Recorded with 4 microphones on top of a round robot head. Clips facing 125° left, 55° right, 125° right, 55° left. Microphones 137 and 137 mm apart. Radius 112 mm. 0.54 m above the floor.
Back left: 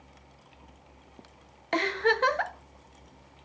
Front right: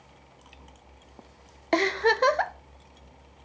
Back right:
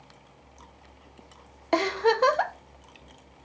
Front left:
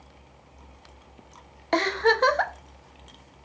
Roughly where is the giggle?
Ahead right.